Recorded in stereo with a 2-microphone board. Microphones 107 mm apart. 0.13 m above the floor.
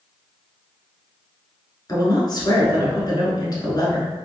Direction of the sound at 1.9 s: 40° left (ahead or behind).